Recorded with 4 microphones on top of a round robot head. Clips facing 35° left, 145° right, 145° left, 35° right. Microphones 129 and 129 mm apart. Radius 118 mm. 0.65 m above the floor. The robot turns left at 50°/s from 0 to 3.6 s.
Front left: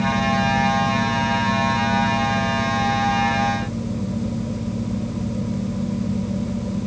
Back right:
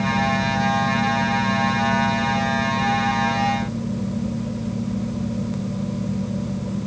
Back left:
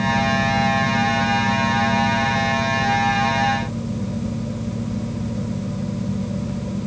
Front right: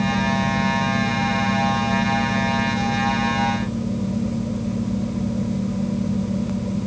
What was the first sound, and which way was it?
Only background noise.